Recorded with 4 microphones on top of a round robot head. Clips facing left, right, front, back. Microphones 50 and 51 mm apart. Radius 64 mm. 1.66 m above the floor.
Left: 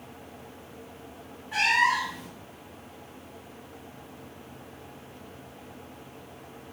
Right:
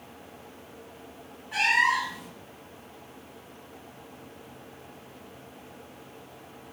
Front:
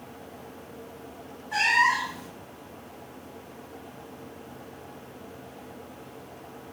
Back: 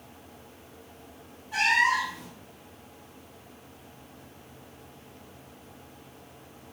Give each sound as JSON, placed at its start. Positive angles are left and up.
{"t": 1.5, "sound": "a cat meowing", "azimuth_deg": 5, "distance_m": 1.0}